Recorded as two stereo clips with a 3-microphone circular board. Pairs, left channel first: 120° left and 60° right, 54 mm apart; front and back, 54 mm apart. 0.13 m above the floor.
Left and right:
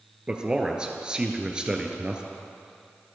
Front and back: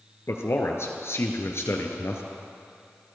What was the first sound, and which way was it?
A man speaking, 10° left.